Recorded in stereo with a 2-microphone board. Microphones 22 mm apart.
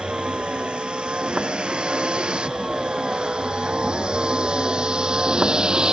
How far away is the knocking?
I don't hear knocking.